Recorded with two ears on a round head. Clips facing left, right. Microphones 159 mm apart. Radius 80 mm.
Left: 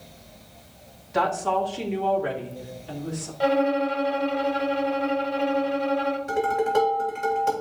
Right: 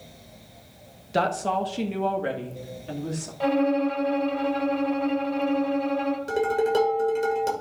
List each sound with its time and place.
1.1 s a woman speaking: 40° right (ahead or behind), 1.1 m; by 3.3 s 50° right (ahead or behind), 2.5 m
3.4 s a violin: 5° left (ahead or behind), 1.3 m
6.3 s dishes clattering: 40° right (ahead or behind), 2.5 m